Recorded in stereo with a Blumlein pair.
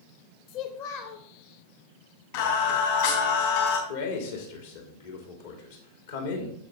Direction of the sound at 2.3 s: 50° left.